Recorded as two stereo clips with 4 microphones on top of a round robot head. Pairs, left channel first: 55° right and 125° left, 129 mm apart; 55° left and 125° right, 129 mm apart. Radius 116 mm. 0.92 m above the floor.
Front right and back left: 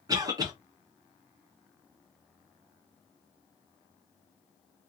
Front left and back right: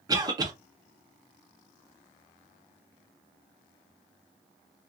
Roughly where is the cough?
Behind.